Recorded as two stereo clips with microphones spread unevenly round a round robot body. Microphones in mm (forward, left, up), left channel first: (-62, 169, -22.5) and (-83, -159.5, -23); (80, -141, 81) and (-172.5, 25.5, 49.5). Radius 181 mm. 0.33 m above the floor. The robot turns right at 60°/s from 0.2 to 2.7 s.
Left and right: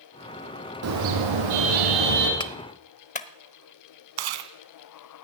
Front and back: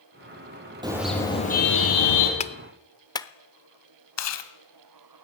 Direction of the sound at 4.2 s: 70° right.